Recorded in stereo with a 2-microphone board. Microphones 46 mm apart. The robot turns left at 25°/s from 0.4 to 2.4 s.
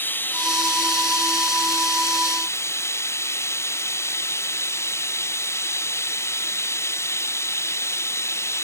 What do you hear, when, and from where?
0.0 s running water: 130° left; by 8.7 s 80° left